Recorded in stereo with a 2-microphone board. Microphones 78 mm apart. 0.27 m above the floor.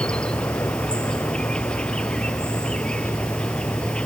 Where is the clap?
I don't hear a clap.